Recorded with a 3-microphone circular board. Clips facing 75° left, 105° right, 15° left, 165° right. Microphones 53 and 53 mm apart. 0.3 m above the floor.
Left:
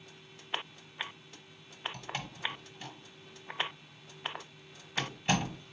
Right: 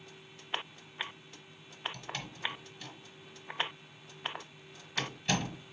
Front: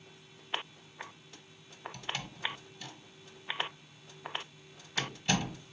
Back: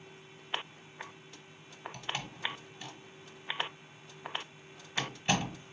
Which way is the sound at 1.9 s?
140° left.